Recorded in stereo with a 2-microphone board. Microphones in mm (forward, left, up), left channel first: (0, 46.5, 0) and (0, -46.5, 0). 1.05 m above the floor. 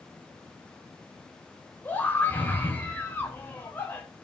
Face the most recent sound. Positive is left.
turn(degrees=20)  # may be behind; listen again after turning